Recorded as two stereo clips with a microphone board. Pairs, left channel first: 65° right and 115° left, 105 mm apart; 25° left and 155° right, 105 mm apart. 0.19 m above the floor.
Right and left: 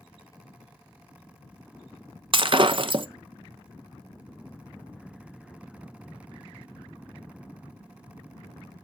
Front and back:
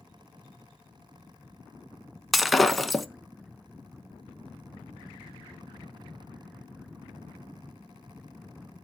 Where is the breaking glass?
115° left, 0.7 m.